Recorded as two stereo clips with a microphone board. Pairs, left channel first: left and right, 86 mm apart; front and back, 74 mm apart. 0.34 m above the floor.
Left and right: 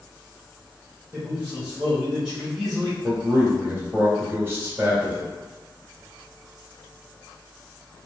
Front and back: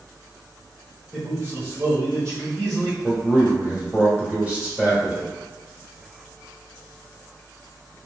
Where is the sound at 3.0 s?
120° right, 1.3 m.